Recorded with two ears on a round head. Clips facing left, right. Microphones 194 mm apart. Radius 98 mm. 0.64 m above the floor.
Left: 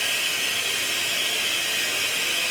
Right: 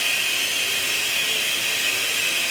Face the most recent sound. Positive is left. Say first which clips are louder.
# even
turn(degrees=-45)  # may be behind; listen again after turning